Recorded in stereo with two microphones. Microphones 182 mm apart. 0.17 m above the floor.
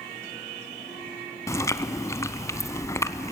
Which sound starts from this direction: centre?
Chewing, at 1.5 s.